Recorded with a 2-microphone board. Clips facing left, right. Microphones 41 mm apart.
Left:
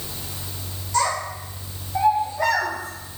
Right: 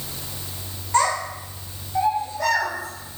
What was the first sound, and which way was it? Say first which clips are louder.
A child speaking: right 2 dB; 40° right (ahead or behind).